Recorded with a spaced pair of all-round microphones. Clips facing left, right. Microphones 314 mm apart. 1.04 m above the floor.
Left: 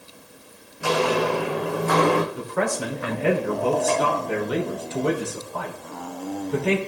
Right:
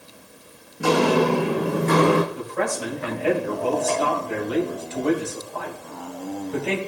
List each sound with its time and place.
0.8 s footsteps: 55° right (ahead or behind), 2.5 m; by 2.2 s 15° right (ahead or behind), 2.5 m
2.3 s a man speaking: 65° left (ahead or behind), 3 m